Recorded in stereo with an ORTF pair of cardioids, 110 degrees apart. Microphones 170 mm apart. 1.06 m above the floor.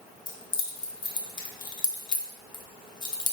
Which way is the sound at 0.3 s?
25° left.